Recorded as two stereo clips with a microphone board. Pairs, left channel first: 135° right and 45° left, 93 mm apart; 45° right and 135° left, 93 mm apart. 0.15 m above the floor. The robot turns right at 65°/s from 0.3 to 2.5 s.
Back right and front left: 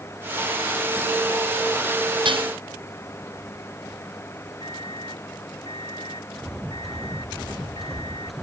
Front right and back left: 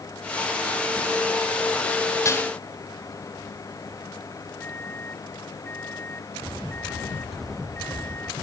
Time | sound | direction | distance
2.2 | dishes clattering | 10° left | ?
4.6 | a microwave | 115° right | ?